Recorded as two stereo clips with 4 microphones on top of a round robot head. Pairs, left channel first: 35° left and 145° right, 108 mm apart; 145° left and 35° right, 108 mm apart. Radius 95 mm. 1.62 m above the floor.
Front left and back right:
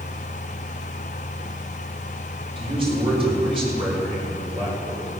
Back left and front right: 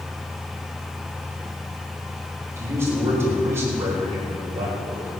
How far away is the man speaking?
About 8.5 m.